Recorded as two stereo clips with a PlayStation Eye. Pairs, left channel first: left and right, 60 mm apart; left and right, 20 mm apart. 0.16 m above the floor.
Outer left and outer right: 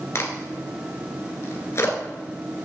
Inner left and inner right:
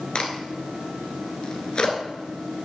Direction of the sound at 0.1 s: 45° left (ahead or behind).